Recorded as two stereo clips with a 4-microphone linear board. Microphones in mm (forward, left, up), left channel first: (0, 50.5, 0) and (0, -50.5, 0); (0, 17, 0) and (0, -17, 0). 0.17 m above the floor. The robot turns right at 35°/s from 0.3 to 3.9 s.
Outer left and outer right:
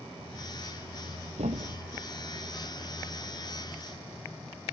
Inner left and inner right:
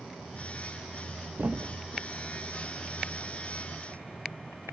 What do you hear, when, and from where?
1.4 s a thud: 80° right, 0.8 m; by 2.1 s 55° right (ahead or behind), 0.8 m